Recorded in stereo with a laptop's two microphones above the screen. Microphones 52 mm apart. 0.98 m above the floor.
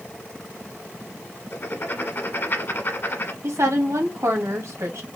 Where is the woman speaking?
65° right (ahead or behind), 1.7 m.